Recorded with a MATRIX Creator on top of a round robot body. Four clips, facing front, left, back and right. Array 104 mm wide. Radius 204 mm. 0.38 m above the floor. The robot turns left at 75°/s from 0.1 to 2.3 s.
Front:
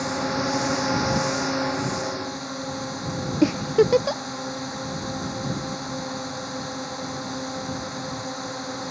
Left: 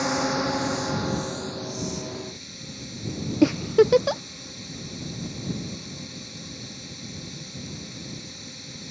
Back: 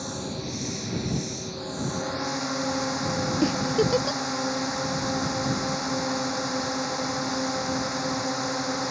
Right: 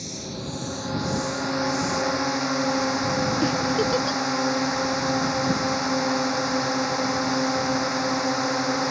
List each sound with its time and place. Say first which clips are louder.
0.0 s a drone: left 10 dB, front 8 dB; 65° left; by 8.9 s 100° right
3.4 s a giggle: left 4 dB, front 6 dB; 60° left